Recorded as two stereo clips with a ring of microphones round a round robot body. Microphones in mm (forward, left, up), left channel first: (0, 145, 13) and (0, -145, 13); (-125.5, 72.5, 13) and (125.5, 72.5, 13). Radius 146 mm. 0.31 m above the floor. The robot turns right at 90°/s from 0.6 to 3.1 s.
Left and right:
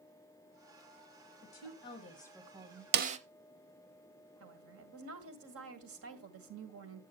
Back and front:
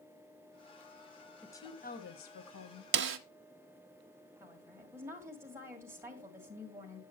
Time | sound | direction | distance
1.4 | a woman speaking | 95° left | 1.7 m
2.9 | a snare drum | 40° right | 0.7 m
4.4 | a woman speaking | 75° right | 1.9 m